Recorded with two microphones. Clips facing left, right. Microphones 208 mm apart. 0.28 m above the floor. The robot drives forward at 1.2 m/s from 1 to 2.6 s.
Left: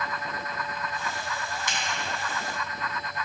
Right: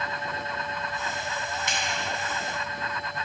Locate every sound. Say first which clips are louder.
1.7 s a finger snap: right 1 dB; 60° right (ahead or behind), 2 m